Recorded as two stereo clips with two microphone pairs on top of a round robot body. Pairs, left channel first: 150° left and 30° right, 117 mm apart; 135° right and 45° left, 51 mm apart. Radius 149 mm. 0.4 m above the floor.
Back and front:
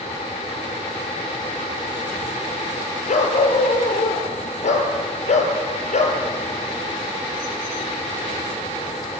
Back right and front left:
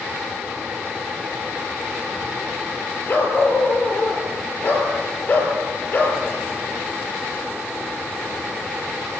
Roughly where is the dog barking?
Behind.